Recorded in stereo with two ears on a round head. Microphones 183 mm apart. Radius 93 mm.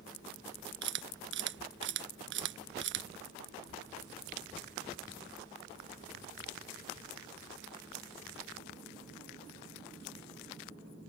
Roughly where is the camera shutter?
Right.